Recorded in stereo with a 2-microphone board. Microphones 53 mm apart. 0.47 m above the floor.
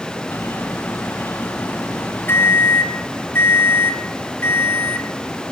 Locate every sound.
0.3 s a microwave: 50° left (ahead or behind), 3 m